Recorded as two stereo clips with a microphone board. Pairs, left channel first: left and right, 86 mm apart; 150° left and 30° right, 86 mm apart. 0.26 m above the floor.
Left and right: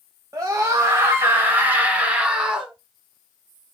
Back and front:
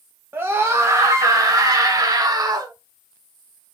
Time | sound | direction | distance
0.3 | a scream | 75° right | 1.5 m